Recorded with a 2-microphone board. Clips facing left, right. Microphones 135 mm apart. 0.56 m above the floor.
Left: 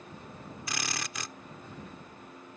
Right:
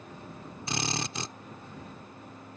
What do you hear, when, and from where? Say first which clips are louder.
0.7 s a drill: right 6 dB; 30° right (ahead or behind)